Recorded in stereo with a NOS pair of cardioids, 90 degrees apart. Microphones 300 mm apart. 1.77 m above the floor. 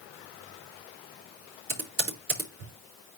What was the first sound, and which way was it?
Typing on a keyboard, 50° right.